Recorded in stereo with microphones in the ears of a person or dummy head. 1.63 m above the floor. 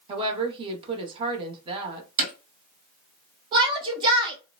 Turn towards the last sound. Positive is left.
turn(degrees=-30)  # may be behind; listen again after turning